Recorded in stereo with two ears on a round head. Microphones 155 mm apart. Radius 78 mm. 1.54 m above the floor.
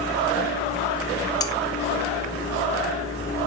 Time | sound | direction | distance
1.4 | cutlery clinking | 20° left (ahead or behind) | 0.6 m